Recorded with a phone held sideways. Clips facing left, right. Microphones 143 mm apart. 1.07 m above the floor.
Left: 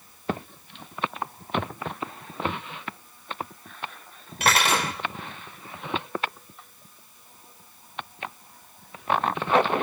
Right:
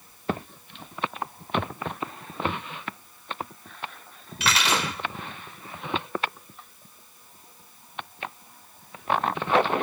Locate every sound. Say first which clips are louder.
4.4 s cutlery clinking: left 3 dB; 50° left (ahead or behind), 3 m